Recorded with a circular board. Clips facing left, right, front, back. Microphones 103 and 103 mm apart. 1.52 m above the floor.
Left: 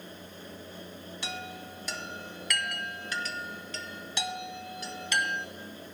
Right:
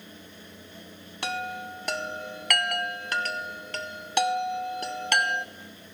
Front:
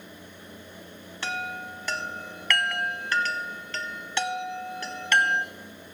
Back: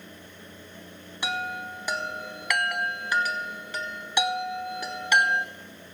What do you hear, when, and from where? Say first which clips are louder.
1.2 s a chime: right 9 dB, back 2 dB; 105° right, 0.8 m